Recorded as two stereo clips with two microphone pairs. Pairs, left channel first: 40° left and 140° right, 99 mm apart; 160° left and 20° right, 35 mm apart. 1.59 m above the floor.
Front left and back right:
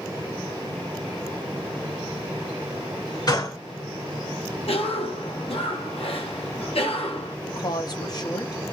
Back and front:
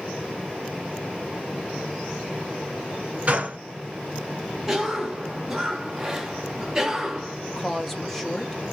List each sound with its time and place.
3.3 s a gunshot: 15° left, 1.8 m
4.7 s a cough: 55° left, 1.0 m
7.5 s a woman speaking: 75° left, 0.8 m